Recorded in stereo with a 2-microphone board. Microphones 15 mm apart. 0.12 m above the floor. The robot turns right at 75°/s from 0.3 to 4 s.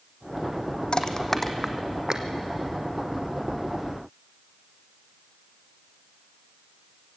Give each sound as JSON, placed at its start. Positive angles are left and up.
{"t": 0.9, "sound": "crushing", "side_deg": 50, "distance_m": 1.2}